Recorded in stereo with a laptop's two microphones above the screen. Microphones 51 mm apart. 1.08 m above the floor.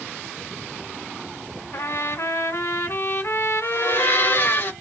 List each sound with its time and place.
1.7 s a trumpet: 60° left (ahead or behind), 1.2 m
3.6 s a blender: 45° left (ahead or behind), 2.5 m